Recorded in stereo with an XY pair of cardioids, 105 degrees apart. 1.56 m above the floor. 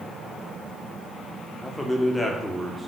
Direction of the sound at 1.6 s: 10° left.